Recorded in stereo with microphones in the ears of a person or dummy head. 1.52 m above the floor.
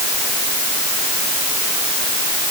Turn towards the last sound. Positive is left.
No sound to turn to.